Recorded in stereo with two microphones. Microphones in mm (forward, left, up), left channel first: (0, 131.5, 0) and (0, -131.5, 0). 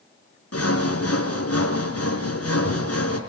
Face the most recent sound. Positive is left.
turn(degrees=65)  # may be behind; listen again after turning